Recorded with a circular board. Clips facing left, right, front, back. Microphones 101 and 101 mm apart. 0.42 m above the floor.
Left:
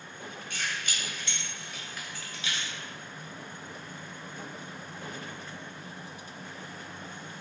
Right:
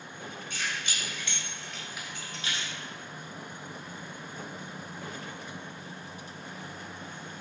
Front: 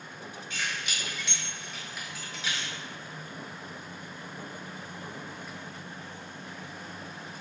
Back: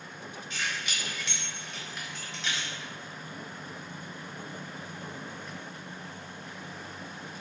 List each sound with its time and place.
0.5 s keys jangling: 90° left, 0.9 m; by 2.7 s 85° right, 0.7 m